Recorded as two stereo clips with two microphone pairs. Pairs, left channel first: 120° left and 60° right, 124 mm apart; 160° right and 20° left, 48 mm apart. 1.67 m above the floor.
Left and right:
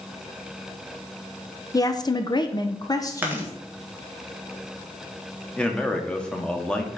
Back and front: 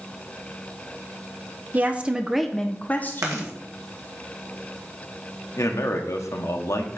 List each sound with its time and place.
1.7 s a woman speaking: 65° left, 0.9 m; by 3.5 s 175° right, 1.0 m
3.2 s chewing: 15° left, 1.9 m
5.6 s a man speaking: 155° right, 1.2 m